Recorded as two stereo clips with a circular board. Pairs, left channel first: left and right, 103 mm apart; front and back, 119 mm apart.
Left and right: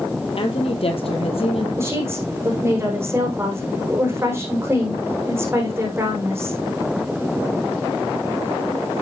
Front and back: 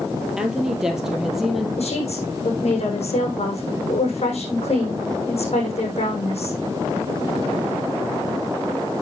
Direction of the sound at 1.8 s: 25° right.